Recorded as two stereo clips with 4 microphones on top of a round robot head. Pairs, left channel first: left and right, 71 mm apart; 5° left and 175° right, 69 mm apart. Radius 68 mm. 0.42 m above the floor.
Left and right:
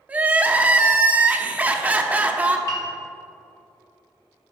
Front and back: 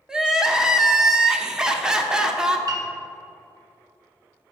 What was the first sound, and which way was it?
Crying, 110° right.